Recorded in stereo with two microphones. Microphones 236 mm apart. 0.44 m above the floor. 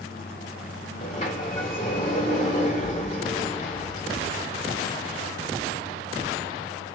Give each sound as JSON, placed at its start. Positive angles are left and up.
{"t": 1.0, "sound": "a sliding door", "side_deg": 30, "distance_m": 1.4}